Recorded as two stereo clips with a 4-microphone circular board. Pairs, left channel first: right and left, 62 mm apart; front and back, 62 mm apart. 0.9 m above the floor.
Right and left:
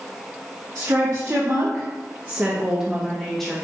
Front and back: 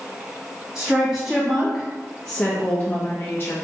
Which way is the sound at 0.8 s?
105° left.